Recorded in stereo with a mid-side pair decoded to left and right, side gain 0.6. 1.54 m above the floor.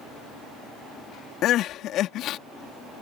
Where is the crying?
60° left.